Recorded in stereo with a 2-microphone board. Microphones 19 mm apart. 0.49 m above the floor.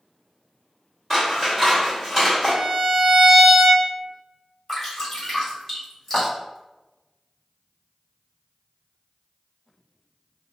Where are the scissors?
10° left (ahead or behind), 1.4 m.